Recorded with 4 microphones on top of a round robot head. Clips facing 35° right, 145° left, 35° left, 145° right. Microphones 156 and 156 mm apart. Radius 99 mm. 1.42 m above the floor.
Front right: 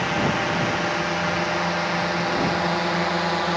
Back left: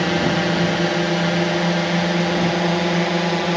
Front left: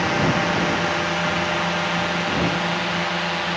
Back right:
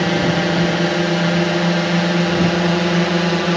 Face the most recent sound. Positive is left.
turn(degrees=-155)